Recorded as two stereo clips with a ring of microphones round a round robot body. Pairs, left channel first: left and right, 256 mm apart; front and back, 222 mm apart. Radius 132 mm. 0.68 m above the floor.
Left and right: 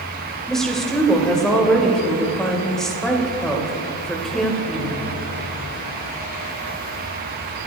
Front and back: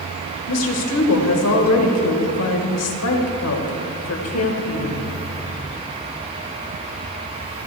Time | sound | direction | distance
0.5 | a woman speaking | straight ahead | 2.5 m